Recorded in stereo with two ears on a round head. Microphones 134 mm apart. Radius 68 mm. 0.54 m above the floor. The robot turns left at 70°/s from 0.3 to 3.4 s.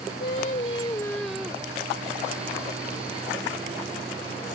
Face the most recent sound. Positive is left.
turn(degrees=-145)